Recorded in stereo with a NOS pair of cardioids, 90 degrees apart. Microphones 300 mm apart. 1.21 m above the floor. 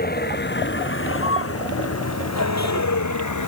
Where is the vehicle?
30° left; by 3.5 s 70° left.